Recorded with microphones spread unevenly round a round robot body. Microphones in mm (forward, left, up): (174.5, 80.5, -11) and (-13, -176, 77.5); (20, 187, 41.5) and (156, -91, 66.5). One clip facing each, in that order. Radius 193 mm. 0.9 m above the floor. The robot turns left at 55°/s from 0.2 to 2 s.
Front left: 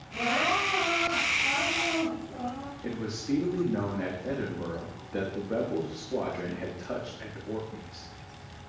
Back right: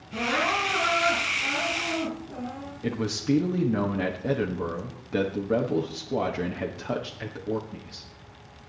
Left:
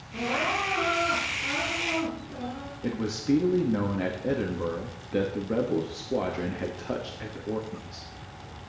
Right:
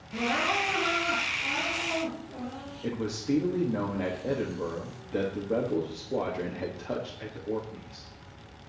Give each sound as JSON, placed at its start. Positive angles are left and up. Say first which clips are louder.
{"t": 0.1, "sound": "crying", "louder": "back right 2 dB, even", "azimuth_deg": -95, "distance_m": 8.0}
{"t": 2.8, "sound": "a man speaking", "louder": "back right 7 dB, left 3 dB", "azimuth_deg": -175, "distance_m": 1.3}